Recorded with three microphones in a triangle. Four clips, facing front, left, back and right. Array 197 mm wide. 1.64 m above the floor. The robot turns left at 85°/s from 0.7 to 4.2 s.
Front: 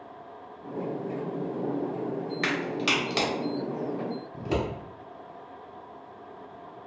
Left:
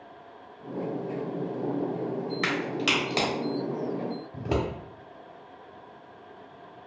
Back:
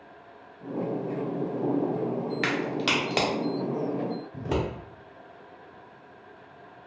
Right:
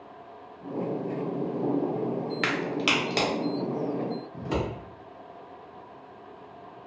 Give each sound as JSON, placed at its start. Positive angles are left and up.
{"t": 2.4, "sound": "a crack", "azimuth_deg": -120, "distance_m": 0.9}
{"t": 4.3, "sound": "scissors", "azimuth_deg": 110, "distance_m": 1.0}